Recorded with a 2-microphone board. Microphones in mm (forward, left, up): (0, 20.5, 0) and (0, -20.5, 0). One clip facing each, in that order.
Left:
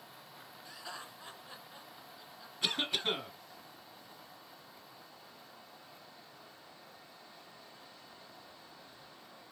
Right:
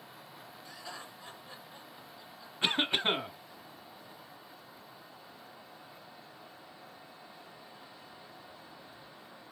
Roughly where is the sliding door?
No sliding door in this recording.